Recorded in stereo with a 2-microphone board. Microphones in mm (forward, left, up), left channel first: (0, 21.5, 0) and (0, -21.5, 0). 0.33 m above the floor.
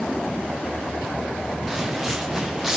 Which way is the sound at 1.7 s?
5° right (ahead or behind).